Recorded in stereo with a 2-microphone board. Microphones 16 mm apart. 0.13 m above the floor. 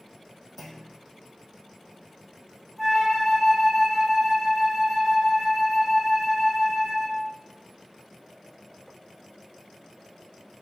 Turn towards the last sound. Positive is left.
turn(degrees=5)  # may be behind; listen again after turning